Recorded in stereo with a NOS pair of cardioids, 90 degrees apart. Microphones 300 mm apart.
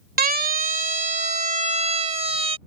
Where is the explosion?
No explosion in this recording.